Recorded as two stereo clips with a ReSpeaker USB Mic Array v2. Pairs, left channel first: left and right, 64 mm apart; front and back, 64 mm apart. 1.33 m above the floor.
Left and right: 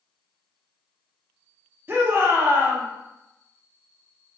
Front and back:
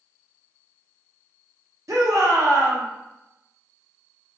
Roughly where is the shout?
Behind right.